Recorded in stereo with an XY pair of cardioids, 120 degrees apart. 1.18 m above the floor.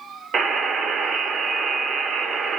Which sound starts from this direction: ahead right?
A buzzer, at 0.3 s.